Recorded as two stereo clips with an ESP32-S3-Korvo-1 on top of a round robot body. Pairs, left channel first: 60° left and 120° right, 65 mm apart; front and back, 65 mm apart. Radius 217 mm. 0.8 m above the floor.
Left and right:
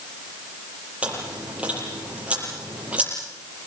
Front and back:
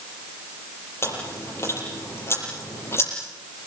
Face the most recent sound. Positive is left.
turn(degrees=-50)